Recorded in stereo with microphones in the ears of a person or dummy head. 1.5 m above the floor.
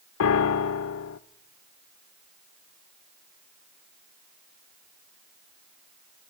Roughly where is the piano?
Left.